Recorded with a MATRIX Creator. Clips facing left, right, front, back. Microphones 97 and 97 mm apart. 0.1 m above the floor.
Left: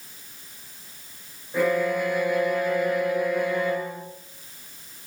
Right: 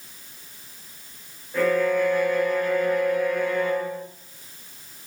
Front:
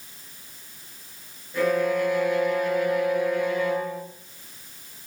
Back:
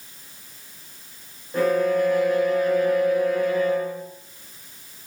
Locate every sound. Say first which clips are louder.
1.5 s a violin: right 2 dB, back 3 dB; 165° left, 1.4 m